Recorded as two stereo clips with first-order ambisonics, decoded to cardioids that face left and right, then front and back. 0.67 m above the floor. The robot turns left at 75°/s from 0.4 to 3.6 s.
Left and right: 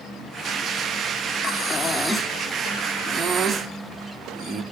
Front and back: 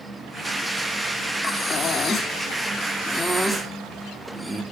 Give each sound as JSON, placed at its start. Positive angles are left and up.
{"t": 1.4, "sound": "breathing", "azimuth_deg": 65, "distance_m": 1.2}